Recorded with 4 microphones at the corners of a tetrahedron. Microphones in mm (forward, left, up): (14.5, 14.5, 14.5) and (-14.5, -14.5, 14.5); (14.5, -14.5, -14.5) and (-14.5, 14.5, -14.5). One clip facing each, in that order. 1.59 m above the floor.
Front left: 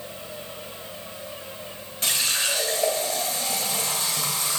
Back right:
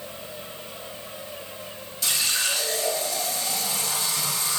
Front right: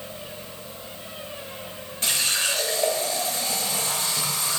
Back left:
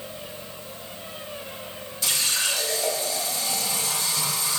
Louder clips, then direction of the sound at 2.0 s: Front left 1 dB, front right 1 dB; straight ahead.